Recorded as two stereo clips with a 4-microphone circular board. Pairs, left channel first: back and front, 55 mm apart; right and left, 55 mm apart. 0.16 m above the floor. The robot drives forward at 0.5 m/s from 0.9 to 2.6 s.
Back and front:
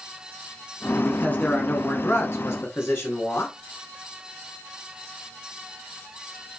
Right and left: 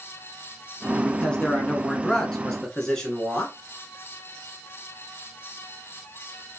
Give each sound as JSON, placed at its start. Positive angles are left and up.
{"t": 1.0, "sound": "a man speaking", "azimuth_deg": -150, "distance_m": 1.3}